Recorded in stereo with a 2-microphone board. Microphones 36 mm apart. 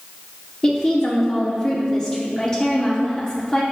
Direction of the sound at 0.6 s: 20° left (ahead or behind).